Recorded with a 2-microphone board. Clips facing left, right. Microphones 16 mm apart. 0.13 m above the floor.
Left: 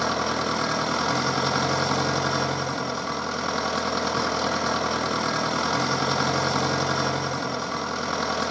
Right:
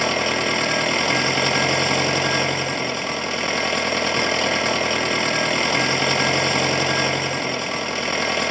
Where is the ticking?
No ticking in this recording.